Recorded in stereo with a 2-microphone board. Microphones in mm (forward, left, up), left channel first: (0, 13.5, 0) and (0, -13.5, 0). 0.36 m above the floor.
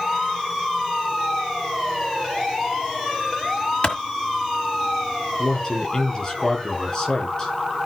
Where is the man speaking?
30° left (ahead or behind), 5.5 m.